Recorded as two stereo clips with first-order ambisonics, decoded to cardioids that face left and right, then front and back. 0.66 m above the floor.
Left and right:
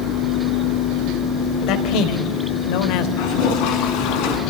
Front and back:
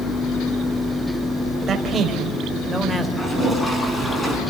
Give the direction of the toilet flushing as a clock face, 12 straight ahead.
9 o'clock.